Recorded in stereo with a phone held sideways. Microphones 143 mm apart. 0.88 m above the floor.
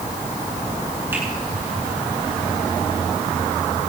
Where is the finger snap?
15° right (ahead or behind), 9 m.